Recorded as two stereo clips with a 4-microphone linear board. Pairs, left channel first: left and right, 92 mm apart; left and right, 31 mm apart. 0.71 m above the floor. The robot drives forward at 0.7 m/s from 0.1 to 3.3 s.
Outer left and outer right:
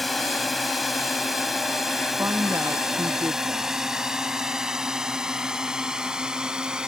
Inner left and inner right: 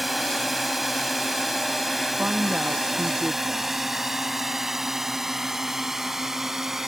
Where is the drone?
Centre (ahead or behind); by 6.9 s 10° right (ahead or behind).